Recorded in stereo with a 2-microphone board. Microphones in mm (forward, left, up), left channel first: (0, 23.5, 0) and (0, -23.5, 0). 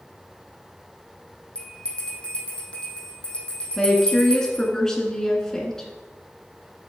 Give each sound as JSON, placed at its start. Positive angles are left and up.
{"t": 1.6, "sound": "a bell", "side_deg": 20, "distance_m": 3.0}
{"t": 3.8, "sound": "a woman speaking", "side_deg": 10, "distance_m": 1.5}